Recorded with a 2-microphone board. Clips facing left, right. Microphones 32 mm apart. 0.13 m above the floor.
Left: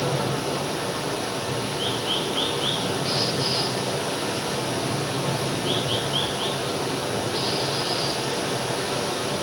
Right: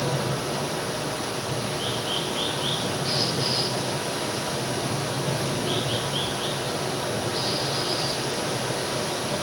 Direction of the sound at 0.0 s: 25° left (ahead or behind).